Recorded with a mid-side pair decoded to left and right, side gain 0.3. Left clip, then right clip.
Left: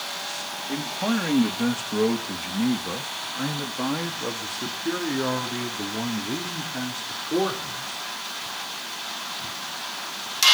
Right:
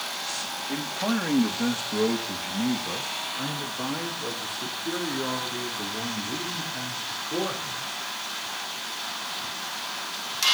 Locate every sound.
0.7 s a man speaking: 15° left, 2.5 m; by 8.1 s 75° left, 4.5 m